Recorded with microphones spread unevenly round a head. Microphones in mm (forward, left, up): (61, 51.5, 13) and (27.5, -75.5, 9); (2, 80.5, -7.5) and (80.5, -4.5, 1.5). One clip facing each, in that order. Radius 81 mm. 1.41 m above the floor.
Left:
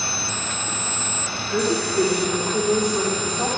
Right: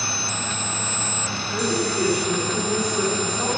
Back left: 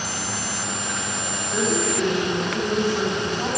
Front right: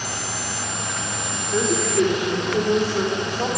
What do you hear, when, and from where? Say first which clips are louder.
1.5 s a woman speaking: left 3 dB, front right 2 dB; 50° left, 4 m; by 3.5 s 30° left, 4 m